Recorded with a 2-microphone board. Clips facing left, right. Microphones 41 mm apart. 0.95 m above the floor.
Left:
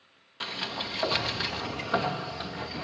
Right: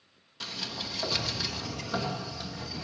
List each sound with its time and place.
0.4 s a sliding door: 30° left (ahead or behind), 1.0 m